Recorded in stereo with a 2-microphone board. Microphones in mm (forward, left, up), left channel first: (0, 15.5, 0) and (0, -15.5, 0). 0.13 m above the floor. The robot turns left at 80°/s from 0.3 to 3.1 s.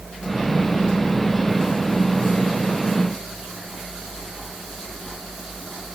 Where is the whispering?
No whispering in this recording.